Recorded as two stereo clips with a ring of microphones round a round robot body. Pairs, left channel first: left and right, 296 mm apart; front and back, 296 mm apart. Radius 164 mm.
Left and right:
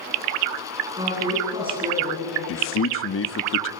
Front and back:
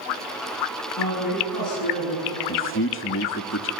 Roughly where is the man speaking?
Ahead left.